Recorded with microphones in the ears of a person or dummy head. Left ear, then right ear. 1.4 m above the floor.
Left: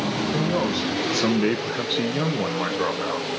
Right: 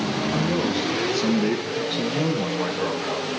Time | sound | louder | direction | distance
0.3 | a man speaking | even | 15° left (ahead or behind) | 1.4 m